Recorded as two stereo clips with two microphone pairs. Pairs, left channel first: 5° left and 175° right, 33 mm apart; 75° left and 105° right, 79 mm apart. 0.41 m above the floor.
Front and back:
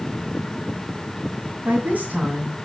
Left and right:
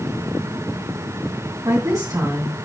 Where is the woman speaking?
140° right, 2.5 m.